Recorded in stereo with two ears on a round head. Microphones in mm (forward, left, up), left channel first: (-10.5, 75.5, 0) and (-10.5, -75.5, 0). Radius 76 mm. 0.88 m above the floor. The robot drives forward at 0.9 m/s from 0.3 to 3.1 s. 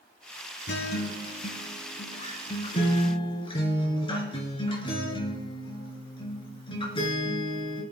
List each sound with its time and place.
0.7 s a guitar: 70° left (ahead or behind), 1.6 m; by 7.8 s 30° left (ahead or behind), 3 m